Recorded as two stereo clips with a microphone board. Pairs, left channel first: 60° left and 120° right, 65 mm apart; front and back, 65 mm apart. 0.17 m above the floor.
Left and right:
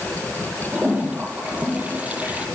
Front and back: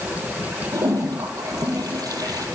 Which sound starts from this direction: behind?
A toilet flushing, at 0.7 s.